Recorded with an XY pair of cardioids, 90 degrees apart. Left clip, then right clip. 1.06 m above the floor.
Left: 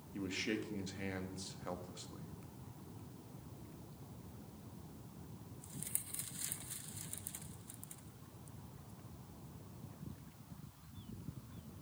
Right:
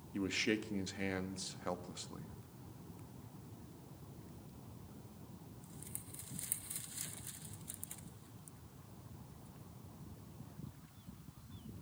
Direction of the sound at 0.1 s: 40° right.